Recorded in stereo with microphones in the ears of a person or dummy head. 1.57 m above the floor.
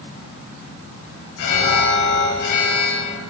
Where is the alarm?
70° left (ahead or behind), 4.5 m.